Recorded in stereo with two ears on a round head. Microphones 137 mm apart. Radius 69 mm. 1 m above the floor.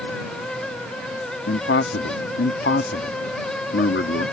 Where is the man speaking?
75° left (ahead or behind).